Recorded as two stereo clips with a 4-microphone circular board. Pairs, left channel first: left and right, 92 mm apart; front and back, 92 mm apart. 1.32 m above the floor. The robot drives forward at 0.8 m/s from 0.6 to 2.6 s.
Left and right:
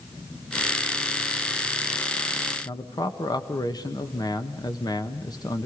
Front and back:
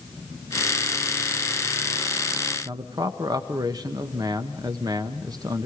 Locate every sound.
2.6 s a man speaking: 135° left, 1.3 m